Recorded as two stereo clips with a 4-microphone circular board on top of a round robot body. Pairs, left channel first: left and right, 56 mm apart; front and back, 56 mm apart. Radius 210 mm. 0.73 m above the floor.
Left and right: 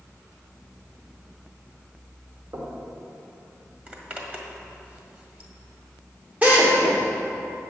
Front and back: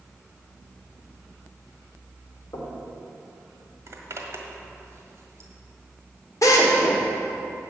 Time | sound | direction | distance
2.5 | knocking | 45° right | 1.8 m
3.9 | a zipper | 150° right | 1.7 m
6.4 | a drill | 25° right | 1.7 m